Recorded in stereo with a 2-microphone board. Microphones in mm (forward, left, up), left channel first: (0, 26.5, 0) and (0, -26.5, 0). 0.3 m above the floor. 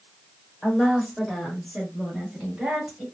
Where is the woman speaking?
10° left (ahead or behind), 1.2 m; by 3.0 s 15° right (ahead or behind), 1.7 m.